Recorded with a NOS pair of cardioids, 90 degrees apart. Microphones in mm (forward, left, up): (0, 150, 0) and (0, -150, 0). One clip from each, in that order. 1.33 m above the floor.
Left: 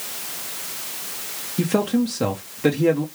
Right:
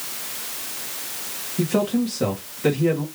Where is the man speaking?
30° left, 1.0 m.